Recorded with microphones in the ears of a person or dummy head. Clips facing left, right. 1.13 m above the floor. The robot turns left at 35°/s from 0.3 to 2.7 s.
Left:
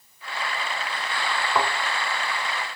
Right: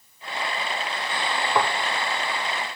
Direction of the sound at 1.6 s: Centre (ahead or behind).